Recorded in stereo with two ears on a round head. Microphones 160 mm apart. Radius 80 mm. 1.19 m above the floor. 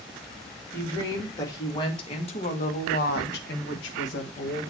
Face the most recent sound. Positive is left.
turn(degrees=65)  # may be behind; listen again after turning